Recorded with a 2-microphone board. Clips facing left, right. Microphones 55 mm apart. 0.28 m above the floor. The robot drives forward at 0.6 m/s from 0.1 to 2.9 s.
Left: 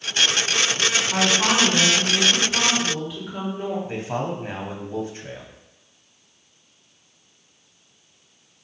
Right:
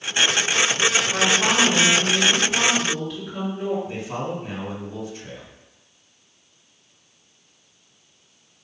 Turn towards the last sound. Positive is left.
turn(degrees=40)  # may be behind; listen again after turning